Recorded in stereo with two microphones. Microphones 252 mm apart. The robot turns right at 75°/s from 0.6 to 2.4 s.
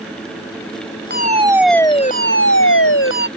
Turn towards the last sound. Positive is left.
turn(degrees=55)